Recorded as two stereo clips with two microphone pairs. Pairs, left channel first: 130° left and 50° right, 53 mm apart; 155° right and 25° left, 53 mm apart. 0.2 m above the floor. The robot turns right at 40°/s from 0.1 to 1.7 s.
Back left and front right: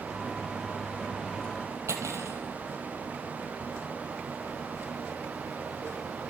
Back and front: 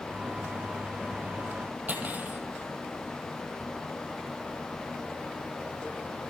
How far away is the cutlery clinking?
About 3.5 m.